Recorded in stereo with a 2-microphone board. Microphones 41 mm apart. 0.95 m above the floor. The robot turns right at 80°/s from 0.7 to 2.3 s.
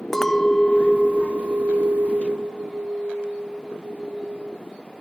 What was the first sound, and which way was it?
A clink, 175° left.